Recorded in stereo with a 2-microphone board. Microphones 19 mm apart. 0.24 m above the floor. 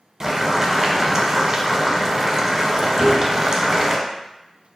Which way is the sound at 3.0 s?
20° right (ahead or behind).